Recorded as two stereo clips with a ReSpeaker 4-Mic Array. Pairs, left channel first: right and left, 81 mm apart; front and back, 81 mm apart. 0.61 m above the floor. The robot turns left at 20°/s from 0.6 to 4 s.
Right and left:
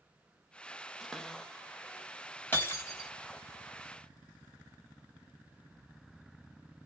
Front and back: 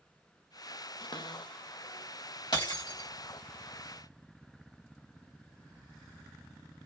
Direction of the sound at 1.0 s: Straight ahead.